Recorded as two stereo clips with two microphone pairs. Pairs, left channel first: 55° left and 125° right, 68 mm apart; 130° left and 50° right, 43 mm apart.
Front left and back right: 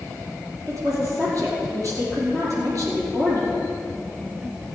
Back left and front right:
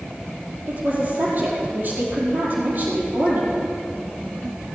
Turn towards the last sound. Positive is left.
turn(degrees=-90)